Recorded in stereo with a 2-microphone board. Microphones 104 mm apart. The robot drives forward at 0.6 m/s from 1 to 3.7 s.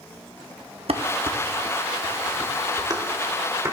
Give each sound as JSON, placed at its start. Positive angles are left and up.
{"t": 0.9, "sound": "dishes clattering", "side_deg": -70, "distance_m": 1.0}